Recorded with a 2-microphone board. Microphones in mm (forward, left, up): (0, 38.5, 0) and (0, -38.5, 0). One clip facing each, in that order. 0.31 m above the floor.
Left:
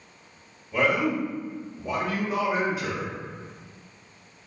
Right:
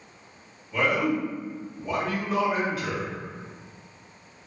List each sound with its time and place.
0.7 s a man speaking: 15° left (ahead or behind), 1.4 m